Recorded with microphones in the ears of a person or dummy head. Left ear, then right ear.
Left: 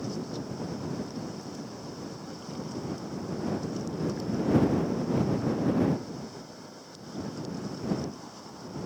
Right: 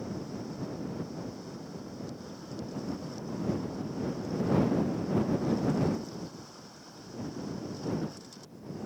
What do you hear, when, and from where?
Only background noise.